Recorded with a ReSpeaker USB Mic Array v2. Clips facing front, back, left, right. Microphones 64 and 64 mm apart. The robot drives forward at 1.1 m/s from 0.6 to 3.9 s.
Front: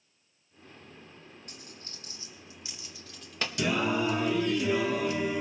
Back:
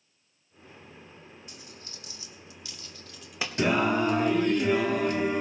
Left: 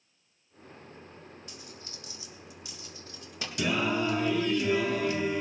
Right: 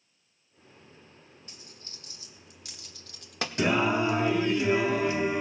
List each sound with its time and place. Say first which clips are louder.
1.5 s a dropped coin: back 1 dB, left 5 dB; 35° right, 2.5 m; by 3.5 s 105° right, 1.4 m
3.6 s singing: back 4 dB, right 3 dB; 135° right, 0.8 m; by 5.4 s 150° right, 1.1 m